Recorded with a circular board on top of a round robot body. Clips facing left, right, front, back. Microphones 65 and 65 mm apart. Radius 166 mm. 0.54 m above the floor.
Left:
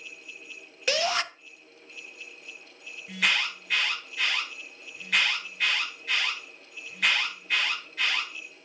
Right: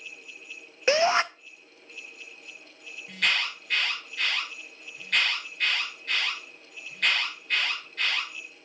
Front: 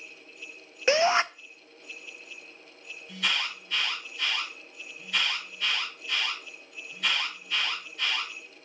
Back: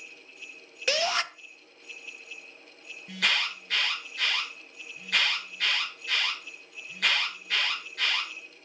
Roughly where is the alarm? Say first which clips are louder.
Left 1 dB, back 2 dB; behind.